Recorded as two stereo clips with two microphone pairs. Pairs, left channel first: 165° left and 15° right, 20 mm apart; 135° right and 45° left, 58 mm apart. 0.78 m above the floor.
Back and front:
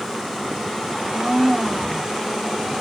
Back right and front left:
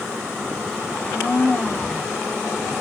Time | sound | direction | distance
0.9 | a blender | 85° right | 2.5 m